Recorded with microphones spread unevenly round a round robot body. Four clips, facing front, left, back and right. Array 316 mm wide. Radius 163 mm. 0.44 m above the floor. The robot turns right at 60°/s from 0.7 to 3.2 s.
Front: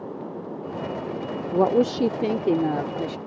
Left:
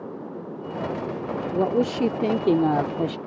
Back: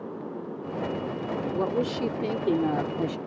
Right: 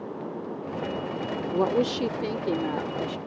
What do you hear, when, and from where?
1.5 s a woman speaking: straight ahead; by 3.2 s 100° left